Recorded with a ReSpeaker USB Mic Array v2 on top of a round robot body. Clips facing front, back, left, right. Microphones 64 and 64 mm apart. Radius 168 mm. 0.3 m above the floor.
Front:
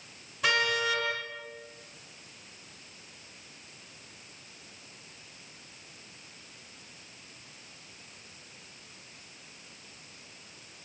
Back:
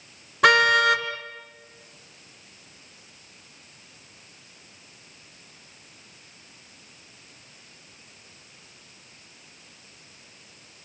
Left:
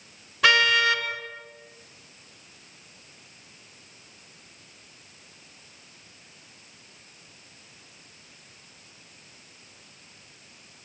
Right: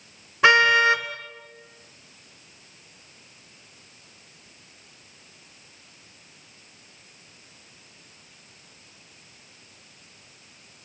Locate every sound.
0.4 s a car horn: 155° right, 2.5 m